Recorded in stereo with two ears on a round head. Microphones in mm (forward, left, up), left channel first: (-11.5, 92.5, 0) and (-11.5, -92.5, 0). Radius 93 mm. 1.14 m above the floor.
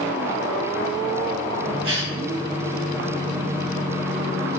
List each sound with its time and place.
1.8 s a cough: 65° right (ahead or behind), 4.5 m